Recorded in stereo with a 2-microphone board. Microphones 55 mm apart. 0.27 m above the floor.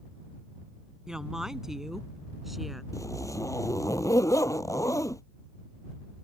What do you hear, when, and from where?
1.1 s a woman speaking: 10° right (ahead or behind); by 2.8 s centre (ahead or behind)
2.9 s a zipper: 75° left (ahead or behind)